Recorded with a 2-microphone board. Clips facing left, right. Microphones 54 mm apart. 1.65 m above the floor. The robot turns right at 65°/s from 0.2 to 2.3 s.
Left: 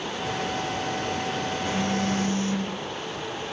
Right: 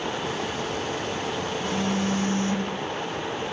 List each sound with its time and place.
1.6 s a phone buzzing: 170° left, 4.5 m; by 3.5 s 145° right, 4.5 m